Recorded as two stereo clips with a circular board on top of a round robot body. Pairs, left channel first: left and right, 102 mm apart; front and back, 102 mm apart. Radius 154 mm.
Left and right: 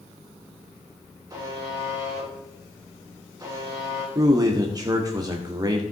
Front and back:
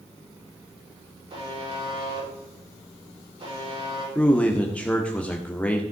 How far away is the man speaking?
About 1.6 m.